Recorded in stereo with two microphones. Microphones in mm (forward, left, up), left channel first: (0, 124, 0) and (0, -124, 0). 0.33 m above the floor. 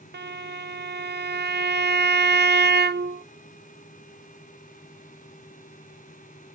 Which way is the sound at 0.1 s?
45° right (ahead or behind).